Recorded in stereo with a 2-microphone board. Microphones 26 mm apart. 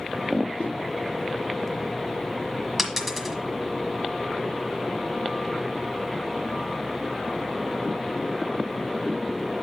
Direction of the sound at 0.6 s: 65° left (ahead or behind).